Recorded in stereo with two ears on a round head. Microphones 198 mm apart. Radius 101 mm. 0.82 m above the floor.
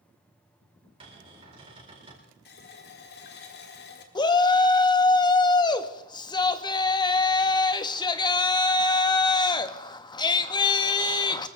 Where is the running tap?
50° left (ahead or behind), 1.7 m.